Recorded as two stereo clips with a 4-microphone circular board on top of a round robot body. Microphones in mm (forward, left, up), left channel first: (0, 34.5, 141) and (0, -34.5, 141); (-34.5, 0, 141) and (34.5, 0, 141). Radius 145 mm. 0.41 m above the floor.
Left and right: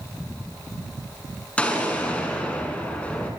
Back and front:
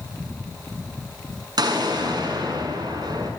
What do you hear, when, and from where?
1.6 s an explosion: 20° left, 6.5 m